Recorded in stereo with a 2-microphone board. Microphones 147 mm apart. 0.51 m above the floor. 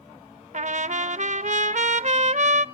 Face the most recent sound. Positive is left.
turn(degrees=-55)  # may be behind; listen again after turning